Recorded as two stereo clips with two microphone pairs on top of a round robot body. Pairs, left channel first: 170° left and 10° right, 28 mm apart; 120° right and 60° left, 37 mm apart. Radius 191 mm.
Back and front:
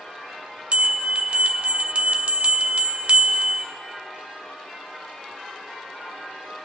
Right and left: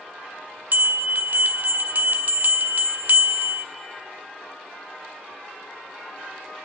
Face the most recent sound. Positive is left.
turn(degrees=30)